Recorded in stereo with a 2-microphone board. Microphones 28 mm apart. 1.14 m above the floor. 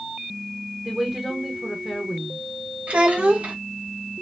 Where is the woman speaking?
15° right (ahead or behind), 1.0 m.